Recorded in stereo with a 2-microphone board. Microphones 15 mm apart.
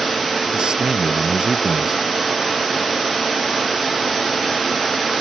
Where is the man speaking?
60° right (ahead or behind).